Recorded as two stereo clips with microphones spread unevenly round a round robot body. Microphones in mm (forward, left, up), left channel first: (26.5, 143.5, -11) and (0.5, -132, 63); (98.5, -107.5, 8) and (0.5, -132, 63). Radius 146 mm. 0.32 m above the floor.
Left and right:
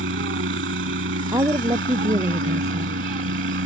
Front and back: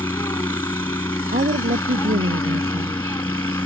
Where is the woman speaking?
175° right.